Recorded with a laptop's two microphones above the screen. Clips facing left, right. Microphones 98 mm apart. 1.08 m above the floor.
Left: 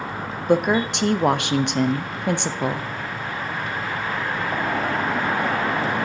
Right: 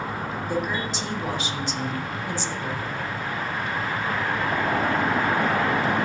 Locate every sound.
0.5 s a woman speaking: 75° left (ahead or behind), 0.5 m